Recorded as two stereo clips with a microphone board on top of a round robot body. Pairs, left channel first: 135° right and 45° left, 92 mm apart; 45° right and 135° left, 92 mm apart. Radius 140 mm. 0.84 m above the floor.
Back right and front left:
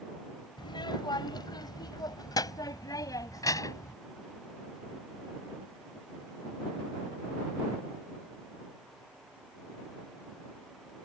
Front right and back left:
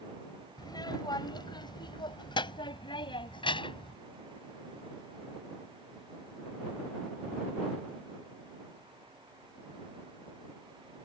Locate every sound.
0.6 s a child speaking: 95° right; by 4.0 s 80° right